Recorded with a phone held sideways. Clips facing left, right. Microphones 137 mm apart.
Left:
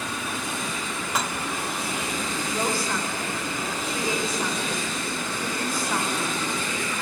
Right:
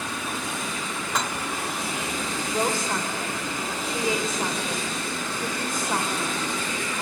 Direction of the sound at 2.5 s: 25° right (ahead or behind).